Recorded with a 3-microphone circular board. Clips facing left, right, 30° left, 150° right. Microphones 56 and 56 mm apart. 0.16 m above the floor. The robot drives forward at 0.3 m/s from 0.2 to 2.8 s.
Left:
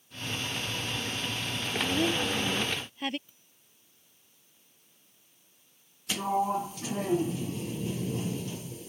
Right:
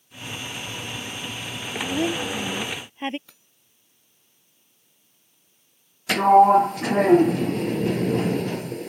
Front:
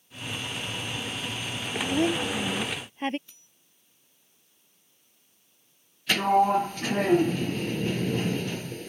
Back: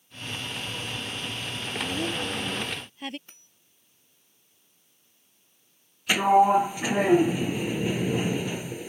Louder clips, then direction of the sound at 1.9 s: Right 4 dB, front 7 dB; 25° right.